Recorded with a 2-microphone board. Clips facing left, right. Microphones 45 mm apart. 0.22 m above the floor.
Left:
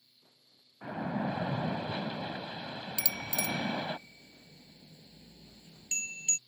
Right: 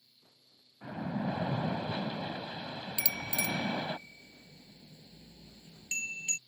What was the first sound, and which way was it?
A splash, 20° left (ahead or behind).